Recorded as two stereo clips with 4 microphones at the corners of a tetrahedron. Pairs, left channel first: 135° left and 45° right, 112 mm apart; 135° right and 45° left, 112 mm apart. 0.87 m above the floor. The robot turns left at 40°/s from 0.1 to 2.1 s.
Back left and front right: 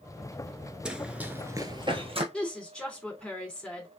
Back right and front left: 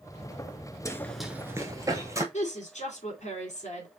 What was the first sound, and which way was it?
Running footsteps, 120° right.